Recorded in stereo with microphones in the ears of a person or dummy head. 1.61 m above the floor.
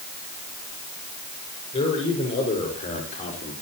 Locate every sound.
1.7 s a man speaking: 30° left (ahead or behind), 6 m; by 3.5 s 35° left (ahead or behind), 4 m